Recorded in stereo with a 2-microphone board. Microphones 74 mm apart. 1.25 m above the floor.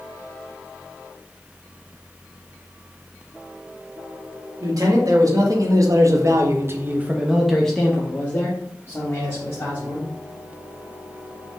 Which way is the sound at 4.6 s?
55° right (ahead or behind).